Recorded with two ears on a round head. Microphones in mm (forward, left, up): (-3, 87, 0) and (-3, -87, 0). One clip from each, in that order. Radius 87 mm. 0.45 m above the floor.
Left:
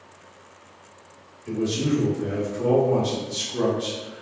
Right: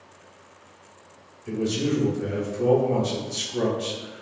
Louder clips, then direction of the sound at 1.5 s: Left 1 dB; centre (ahead or behind).